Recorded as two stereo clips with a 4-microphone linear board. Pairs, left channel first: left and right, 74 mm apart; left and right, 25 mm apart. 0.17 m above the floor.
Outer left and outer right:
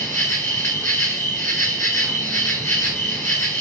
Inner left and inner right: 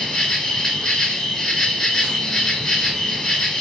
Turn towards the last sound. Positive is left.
turn(degrees=35)  # may be behind; listen again after turning